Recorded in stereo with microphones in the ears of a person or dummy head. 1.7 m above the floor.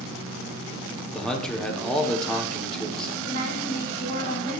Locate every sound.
1.1 s a man speaking: 5° left (ahead or behind), 1.2 m
3.2 s a woman speaking: 50° right (ahead or behind), 4 m